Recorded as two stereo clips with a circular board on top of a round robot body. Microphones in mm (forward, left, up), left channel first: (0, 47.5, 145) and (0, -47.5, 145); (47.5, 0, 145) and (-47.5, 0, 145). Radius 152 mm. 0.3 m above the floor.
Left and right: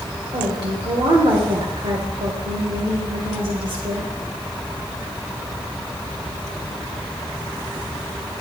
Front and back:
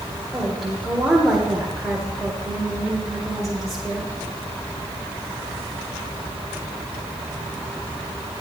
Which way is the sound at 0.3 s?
90° right.